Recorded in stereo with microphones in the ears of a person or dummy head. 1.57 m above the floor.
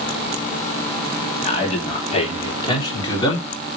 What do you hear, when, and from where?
1.4 s a man speaking: 35° left (ahead or behind), 3 m; by 3.5 s 25° left (ahead or behind), 4 m